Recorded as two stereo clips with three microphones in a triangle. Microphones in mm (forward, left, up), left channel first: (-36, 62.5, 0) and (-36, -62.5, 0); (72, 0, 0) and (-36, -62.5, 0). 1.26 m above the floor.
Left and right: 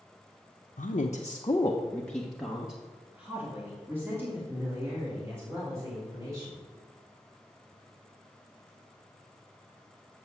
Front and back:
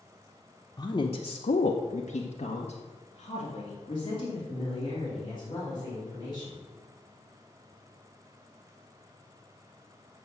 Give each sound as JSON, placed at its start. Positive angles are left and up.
{"t": 0.8, "sound": "a woman speaking", "azimuth_deg": 90, "distance_m": 0.8}